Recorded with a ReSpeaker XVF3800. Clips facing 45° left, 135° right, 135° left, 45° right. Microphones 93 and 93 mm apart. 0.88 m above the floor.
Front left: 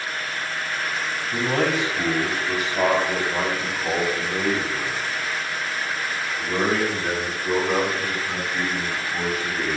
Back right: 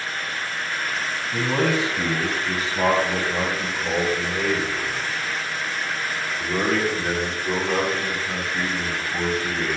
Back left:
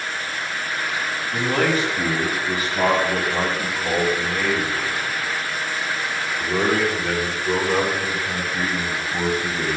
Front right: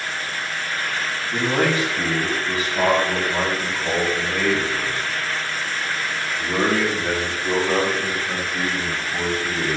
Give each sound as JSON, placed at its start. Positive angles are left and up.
{"t": 1.3, "sound": "a man speaking", "azimuth_deg": 30, "distance_m": 6.0}